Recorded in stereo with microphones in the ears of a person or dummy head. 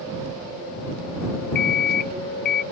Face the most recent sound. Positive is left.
turn(degrees=55)  # may be behind; listen again after turning